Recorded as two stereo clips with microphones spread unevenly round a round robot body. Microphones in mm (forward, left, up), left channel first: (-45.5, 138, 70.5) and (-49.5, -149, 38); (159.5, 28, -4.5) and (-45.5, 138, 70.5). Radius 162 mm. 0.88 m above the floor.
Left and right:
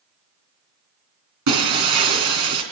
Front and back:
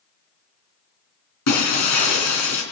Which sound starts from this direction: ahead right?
Breaking glass, at 1.5 s.